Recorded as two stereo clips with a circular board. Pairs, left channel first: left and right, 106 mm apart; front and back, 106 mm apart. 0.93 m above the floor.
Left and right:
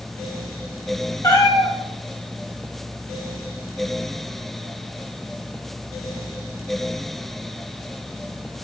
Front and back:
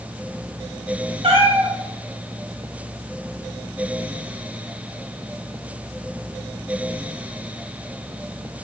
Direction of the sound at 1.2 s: 145° left.